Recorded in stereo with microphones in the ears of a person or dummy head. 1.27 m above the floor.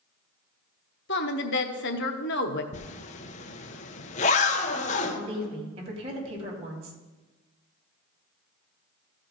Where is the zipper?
40° left (ahead or behind), 0.7 m.